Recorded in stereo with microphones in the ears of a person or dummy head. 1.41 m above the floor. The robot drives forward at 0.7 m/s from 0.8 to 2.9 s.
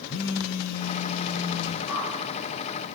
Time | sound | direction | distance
0.1 | a phone buzzing | 70° left (ahead or behind) | 3 m
1.9 | a whoosh | 15° right (ahead or behind) | 9 m